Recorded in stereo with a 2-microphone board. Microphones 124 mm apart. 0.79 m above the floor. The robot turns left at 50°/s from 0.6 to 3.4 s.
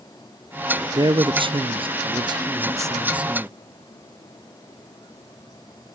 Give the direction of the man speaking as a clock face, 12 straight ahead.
2 o'clock.